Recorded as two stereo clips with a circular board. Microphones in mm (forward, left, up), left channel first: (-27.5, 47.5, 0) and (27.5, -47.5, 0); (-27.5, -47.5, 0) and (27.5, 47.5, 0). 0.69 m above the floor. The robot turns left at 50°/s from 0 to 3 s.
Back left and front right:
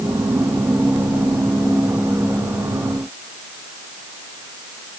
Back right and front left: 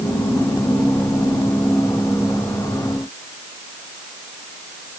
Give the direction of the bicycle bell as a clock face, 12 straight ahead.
I don't hear a bicycle bell.